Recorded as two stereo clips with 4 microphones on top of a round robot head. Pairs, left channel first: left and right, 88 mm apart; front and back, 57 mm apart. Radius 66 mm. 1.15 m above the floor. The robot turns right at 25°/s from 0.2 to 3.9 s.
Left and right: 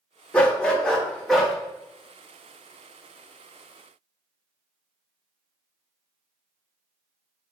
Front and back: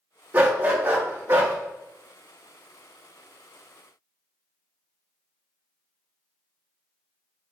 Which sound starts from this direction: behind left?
A dog barking, at 0.3 s.